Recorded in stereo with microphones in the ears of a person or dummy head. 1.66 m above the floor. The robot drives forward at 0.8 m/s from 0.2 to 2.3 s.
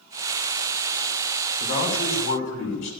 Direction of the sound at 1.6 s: 65° left (ahead or behind).